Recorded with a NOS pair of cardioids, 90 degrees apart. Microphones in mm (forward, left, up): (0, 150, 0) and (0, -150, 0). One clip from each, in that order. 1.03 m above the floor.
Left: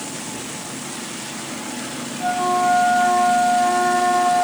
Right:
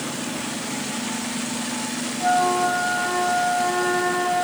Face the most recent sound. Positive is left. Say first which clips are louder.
# left 1 dB
turn(degrees=15)